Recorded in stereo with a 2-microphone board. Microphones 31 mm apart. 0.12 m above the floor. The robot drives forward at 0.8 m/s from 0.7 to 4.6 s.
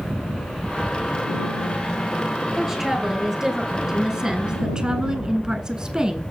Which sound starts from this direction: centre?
A woman speaking, at 2.6 s.